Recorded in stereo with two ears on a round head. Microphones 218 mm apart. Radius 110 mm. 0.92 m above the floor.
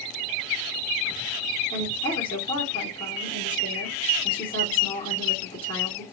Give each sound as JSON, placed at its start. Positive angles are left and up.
{"t": 1.7, "sound": "a woman speaking", "side_deg": 20, "distance_m": 1.2}